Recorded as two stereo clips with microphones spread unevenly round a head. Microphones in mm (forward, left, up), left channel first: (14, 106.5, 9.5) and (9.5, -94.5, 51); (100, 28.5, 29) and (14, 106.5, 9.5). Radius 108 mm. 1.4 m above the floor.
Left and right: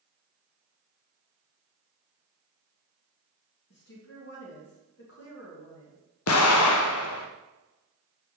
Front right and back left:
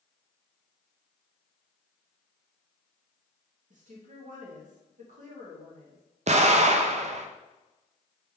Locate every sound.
3.7 s a woman speaking: 130° left, 1.5 m
6.3 s an explosion: 110° left, 0.7 m